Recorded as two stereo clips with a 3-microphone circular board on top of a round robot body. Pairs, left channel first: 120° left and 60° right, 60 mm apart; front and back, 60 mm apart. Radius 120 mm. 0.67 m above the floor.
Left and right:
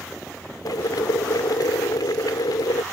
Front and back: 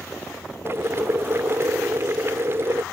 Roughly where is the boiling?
Behind left.